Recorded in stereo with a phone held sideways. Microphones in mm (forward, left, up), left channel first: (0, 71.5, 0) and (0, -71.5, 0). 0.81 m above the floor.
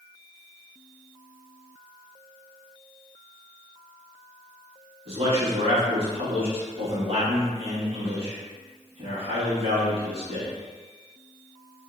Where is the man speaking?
50° right (ahead or behind), 1.7 m.